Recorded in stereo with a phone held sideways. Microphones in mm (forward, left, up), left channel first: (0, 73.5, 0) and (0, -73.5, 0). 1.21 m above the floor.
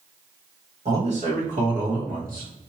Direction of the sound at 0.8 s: 50° right (ahead or behind).